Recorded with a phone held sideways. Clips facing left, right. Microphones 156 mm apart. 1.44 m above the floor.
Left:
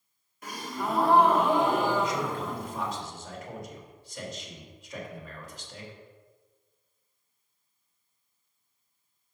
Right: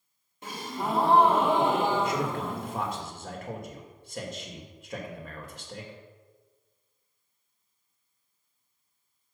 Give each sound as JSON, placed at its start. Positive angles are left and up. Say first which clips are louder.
{"t": 0.4, "sound": "a gasp", "louder": "right 1 dB", "side_deg": -25, "distance_m": 1.5}
{"t": 2.0, "sound": "a man speaking", "louder": "right 1 dB", "side_deg": -55, "distance_m": 2.5}